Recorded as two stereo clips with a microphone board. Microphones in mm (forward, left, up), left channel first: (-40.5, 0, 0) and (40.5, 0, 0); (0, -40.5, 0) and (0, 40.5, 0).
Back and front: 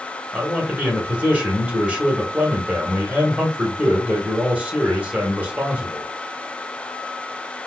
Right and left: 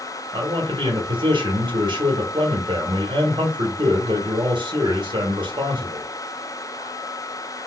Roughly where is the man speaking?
Left.